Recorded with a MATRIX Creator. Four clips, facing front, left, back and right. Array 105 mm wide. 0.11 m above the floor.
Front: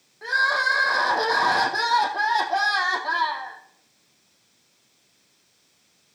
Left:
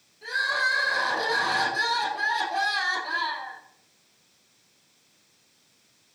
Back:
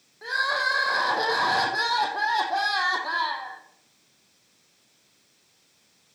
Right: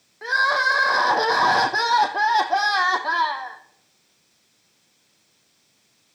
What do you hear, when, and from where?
0.2 s crying: 85° right, 1.9 m